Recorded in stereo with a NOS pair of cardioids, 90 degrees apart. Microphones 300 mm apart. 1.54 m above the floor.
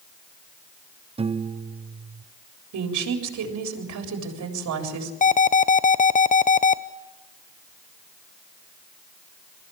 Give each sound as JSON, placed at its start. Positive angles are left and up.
{"t": 1.2, "sound": "a piano", "azimuth_deg": -20, "distance_m": 0.6}
{"t": 2.7, "sound": "a woman speaking", "azimuth_deg": -70, "distance_m": 4.0}
{"t": 5.2, "sound": "an alarm", "azimuth_deg": 25, "distance_m": 0.7}